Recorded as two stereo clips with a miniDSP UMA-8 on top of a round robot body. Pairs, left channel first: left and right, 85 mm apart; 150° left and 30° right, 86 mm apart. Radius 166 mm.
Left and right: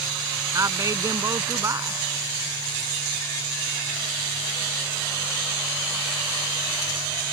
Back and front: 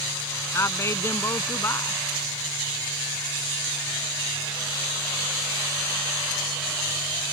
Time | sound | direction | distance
0.5 | a woman speaking | 150° right | ?